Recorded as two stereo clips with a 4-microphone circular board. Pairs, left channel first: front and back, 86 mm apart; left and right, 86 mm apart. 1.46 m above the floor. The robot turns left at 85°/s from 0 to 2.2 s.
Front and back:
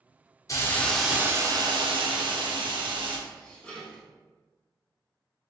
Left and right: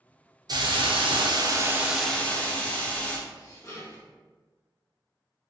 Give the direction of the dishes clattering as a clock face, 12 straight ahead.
10 o'clock.